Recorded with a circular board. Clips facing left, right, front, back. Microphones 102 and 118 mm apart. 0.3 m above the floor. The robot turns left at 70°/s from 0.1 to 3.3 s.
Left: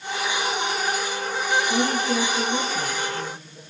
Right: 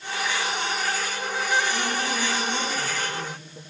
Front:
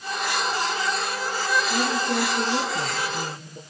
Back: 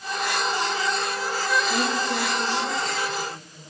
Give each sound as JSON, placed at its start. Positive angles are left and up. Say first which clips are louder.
{"t": 1.7, "sound": "a woman speaking", "louder": "left 5 dB, front 1 dB", "azimuth_deg": 95, "distance_m": 5.0}